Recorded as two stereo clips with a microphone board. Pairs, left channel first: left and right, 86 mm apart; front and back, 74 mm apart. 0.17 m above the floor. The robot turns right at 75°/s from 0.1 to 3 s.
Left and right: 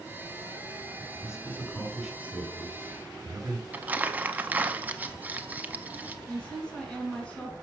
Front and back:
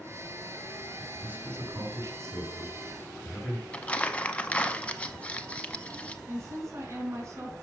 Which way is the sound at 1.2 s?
125° left.